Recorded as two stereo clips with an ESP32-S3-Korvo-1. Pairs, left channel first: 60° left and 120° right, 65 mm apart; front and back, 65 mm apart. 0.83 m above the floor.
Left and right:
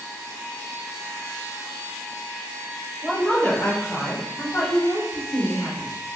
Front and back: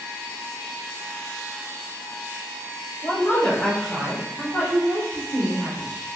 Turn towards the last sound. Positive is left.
turn(degrees=105)